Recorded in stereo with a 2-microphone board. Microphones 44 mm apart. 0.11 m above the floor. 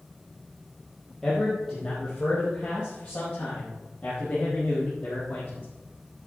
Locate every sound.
1.2 s a man speaking: 15° left (ahead or behind), 3.5 m; by 5.7 s 40° left (ahead or behind), 5 m